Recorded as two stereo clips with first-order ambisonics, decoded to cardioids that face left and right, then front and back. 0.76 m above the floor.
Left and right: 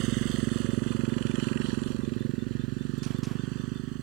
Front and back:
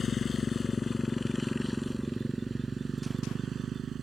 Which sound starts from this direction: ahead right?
A motorcycle, at 0.0 s.